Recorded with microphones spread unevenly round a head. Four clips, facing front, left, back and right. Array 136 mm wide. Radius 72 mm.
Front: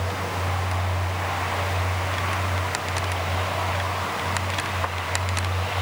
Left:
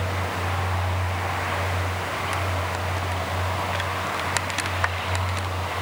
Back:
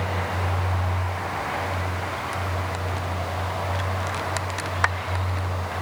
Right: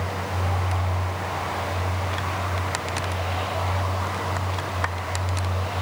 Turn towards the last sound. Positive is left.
No sound to turn to.